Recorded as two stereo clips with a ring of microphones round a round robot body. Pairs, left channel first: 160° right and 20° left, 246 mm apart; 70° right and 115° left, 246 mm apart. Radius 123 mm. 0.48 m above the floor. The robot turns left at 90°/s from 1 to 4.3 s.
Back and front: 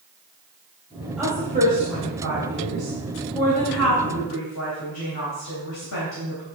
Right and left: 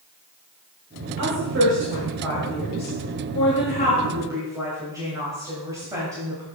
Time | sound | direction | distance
1.2 | a woman speaking | 110° left | 3 m